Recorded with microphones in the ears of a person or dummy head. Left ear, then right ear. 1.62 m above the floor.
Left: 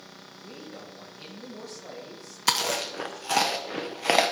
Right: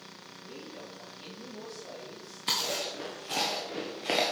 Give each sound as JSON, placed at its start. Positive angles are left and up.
{"t": 0.4, "sound": "a man speaking", "side_deg": 70, "distance_m": 2.0}
{"t": 2.5, "sound": "chewing", "side_deg": 45, "distance_m": 0.9}